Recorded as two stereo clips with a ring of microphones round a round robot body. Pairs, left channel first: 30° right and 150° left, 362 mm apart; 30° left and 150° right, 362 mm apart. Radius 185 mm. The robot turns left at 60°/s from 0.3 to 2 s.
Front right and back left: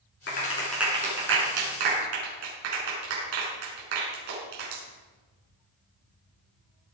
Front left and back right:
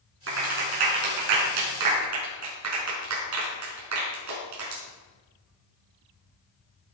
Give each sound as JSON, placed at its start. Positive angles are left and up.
{"t": 0.3, "sound": "a clap", "azimuth_deg": -95, "distance_m": 5.0}